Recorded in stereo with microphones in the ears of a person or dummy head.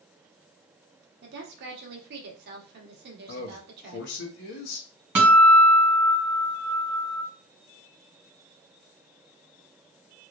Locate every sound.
1.2 s a woman speaking: 60° right (ahead or behind), 1.1 m
3.3 s a man speaking: 60° left (ahead or behind), 1.0 m
5.2 s a guitar: 5° right (ahead or behind), 2 m